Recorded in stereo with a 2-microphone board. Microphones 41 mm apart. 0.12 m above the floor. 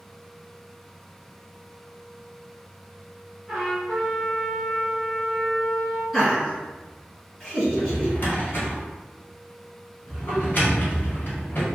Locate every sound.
3.5 s a trumpet: 5° right (ahead or behind), 1.5 m
6.1 s laughter: 5° right (ahead or behind), 1.6 m
7.7 s a drawer: 45° left (ahead or behind), 1.3 m